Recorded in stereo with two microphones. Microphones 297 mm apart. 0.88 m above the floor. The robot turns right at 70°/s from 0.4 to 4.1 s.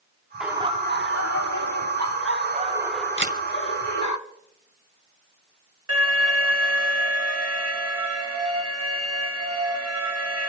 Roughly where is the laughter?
Behind.